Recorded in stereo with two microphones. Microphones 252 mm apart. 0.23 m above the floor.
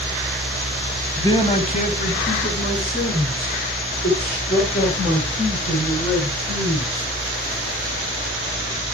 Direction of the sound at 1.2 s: 15° left (ahead or behind).